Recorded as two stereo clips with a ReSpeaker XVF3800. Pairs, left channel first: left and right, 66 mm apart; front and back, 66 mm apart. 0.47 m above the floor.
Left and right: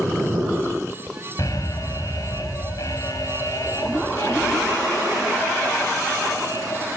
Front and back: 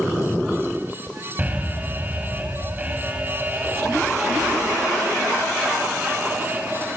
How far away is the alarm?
About 4.5 m.